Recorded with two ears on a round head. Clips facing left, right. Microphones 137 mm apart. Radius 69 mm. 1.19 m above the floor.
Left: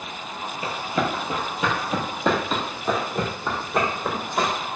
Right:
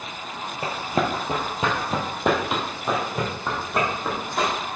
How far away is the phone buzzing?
No phone buzzing in this recording.